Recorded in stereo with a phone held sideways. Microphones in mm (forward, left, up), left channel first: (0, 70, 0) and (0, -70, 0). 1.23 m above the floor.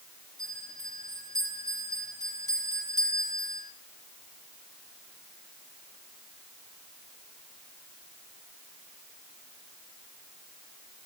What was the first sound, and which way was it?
A bell, 25° left (ahead or behind).